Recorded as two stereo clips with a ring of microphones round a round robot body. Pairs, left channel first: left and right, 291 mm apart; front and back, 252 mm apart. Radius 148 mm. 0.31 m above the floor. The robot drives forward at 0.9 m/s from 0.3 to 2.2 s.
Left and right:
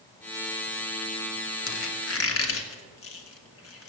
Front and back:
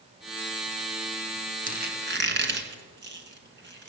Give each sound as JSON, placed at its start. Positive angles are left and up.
{"t": 1.7, "sound": "a squeak", "azimuth_deg": 120, "distance_m": 1.6}